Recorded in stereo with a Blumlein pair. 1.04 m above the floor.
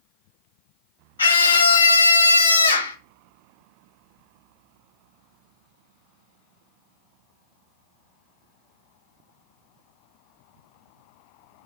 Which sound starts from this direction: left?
A scream, at 1.2 s.